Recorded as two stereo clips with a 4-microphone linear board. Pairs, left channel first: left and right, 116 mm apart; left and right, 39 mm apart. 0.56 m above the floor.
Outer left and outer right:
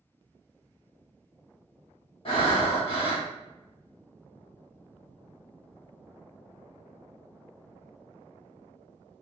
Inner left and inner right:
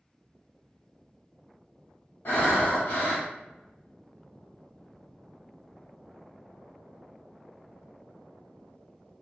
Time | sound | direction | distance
2.2 | breathing | 55° left (ahead or behind) | 1.2 m